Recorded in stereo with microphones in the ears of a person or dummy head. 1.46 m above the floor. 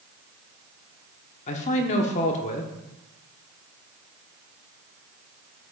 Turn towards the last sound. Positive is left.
turn(degrees=40)  # may be behind; listen again after turning